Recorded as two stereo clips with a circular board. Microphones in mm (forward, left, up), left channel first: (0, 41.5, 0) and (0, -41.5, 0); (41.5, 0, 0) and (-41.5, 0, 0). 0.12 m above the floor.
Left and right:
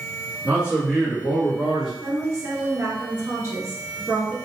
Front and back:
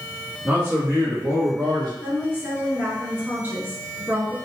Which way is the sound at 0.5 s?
125° right.